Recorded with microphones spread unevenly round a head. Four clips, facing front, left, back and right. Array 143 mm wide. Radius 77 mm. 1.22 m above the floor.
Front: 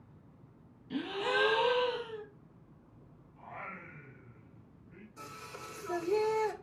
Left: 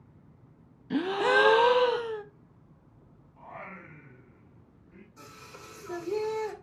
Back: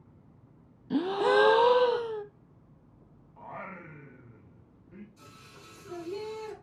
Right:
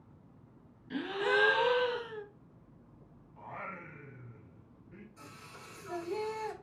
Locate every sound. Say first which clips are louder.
0.9 s a gasp: left 6 dB, back 9 dB; 140° left, 0.7 m
3.4 s singing: even, back 4 dB; 175° right, 2.5 m
5.2 s singing: left 3 dB, front 6 dB; 25° left, 2.5 m